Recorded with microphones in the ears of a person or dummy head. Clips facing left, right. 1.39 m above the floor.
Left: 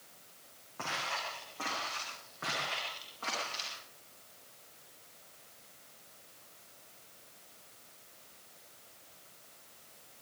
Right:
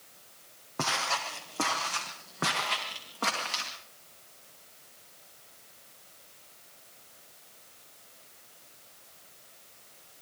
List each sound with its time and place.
0.8 s footsteps: 70° right (ahead or behind), 4.5 m; by 3.7 s 80° right, 8.5 m